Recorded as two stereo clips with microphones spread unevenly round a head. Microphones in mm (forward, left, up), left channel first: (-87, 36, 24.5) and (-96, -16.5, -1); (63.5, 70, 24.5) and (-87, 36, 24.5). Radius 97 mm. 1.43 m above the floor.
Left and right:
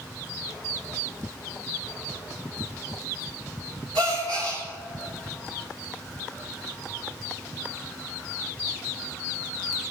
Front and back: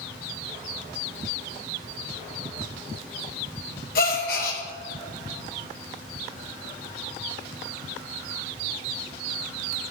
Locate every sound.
4.0 s a gasp: 35° right, 1.2 m